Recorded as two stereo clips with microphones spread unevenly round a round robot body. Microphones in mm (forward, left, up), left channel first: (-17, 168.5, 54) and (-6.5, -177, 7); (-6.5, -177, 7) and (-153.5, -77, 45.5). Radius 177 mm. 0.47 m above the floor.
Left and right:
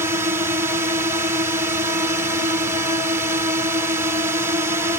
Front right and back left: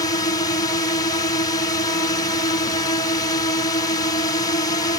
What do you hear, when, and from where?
0.0 s a drone: 25° right